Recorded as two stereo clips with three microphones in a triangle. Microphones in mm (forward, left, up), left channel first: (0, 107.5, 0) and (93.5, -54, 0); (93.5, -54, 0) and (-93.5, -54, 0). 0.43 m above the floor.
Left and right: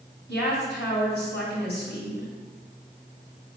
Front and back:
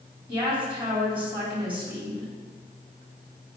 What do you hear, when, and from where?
0.3 s a woman speaking: 100° left, 3 m